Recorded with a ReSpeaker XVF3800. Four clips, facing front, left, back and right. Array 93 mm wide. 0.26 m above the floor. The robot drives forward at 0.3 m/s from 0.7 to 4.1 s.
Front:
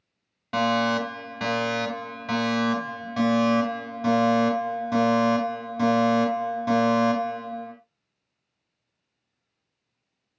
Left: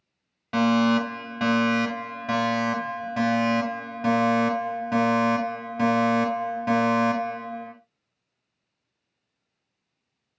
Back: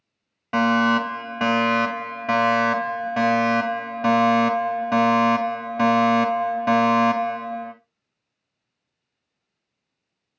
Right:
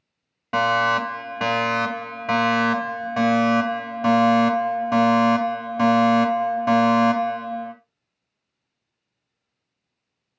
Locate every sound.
0.5 s a fire alarm: 145° right, 2 m; by 7.7 s 160° right, 2.5 m